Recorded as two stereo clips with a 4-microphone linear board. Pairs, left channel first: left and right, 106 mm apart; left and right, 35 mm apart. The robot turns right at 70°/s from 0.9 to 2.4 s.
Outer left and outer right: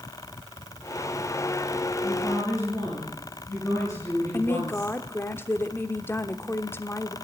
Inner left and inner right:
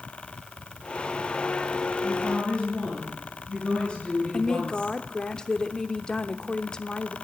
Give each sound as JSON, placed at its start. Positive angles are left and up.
{"t": 2.0, "sound": "a woman speaking", "side_deg": 5, "distance_m": 9.5}
{"t": 4.3, "sound": "a woman speaking", "side_deg": 20, "distance_m": 1.0}